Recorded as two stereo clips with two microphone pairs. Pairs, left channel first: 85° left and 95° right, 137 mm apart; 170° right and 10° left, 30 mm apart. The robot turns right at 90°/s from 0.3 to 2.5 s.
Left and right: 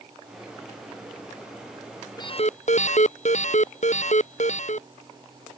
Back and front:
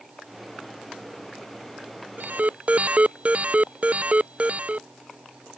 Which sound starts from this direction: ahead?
An alarm, at 2.2 s.